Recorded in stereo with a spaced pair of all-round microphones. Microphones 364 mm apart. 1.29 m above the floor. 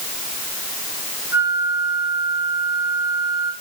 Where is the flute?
10° right (ahead or behind), 4.5 m.